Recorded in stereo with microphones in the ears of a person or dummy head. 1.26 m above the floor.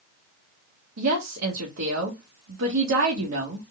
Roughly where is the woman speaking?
Right.